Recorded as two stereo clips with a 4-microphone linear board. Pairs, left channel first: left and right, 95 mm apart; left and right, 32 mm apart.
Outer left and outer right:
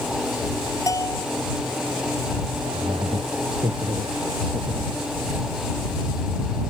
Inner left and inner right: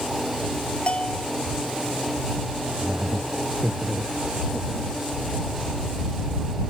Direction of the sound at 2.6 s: 80° right.